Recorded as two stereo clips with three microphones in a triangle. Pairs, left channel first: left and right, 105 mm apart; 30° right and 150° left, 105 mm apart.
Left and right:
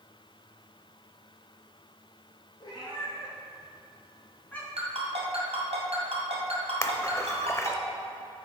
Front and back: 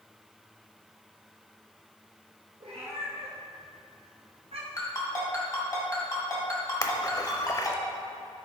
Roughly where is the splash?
Ahead left.